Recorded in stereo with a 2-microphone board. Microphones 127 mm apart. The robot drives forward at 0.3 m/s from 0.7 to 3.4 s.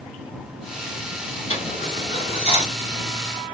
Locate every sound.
1.5 s a dropped coin: 45° left (ahead or behind), 1.4 m